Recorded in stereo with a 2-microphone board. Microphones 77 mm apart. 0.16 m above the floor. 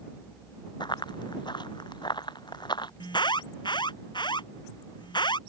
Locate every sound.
0.8 s running footsteps: 75° left (ahead or behind); by 2.9 s 70° left (ahead or behind)
3.0 s an alarm: 75° left (ahead or behind)